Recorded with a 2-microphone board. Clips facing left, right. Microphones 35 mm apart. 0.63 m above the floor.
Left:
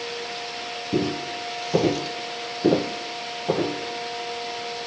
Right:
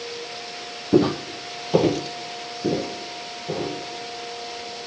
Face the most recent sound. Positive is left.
turn(degrees=60)  # may be behind; listen again after turning